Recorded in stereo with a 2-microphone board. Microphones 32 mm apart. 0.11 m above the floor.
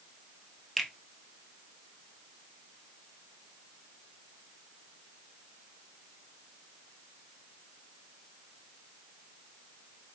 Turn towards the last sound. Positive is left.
turn(degrees=0)  # may be behind; listen again after turning